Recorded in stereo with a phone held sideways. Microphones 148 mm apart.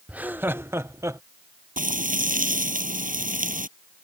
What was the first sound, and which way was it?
Laughter, 10° right (ahead or behind).